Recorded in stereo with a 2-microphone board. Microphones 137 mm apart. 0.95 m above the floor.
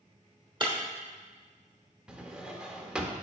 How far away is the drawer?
About 0.7 m.